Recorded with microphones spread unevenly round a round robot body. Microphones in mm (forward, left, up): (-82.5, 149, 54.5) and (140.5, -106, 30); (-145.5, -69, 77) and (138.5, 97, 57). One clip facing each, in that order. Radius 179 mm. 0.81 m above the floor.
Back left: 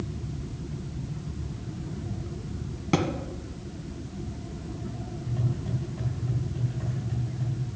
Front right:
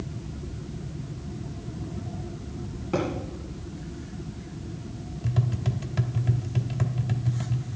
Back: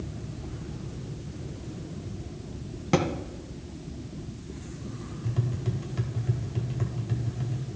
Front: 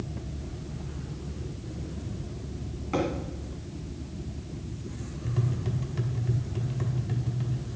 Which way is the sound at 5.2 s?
55° right.